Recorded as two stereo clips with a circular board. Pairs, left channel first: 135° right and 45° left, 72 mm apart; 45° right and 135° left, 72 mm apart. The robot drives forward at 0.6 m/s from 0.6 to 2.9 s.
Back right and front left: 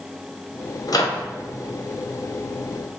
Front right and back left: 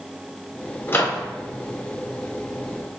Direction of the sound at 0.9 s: 100° right.